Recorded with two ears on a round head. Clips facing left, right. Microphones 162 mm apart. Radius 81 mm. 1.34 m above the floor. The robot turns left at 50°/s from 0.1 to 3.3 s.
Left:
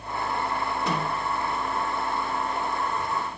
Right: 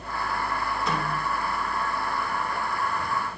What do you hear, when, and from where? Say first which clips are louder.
0.9 s a snare drum: left 1 dB; 70° left (ahead or behind), 8 m; by 1.2 s 90° left, 8 m